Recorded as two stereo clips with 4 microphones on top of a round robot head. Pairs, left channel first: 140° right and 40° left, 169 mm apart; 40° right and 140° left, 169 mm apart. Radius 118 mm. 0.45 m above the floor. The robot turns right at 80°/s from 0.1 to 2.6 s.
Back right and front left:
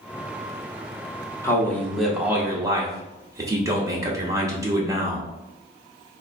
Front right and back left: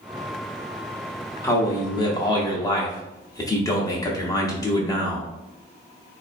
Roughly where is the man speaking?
Right.